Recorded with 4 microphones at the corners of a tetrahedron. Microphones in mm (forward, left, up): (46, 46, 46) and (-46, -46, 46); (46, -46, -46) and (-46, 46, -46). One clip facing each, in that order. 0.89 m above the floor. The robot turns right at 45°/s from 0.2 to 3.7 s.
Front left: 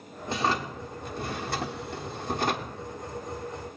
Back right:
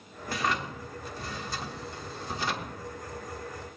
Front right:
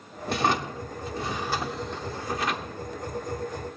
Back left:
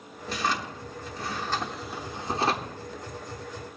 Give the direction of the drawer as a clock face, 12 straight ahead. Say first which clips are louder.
Front left 3 dB, front right 4 dB; 1 o'clock.